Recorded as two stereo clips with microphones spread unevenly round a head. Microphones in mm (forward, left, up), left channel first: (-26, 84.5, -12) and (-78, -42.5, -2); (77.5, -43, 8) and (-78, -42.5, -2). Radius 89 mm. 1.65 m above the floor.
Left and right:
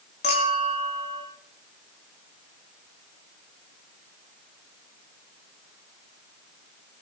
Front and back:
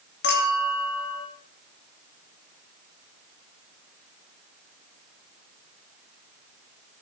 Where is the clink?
10° left, 2 m.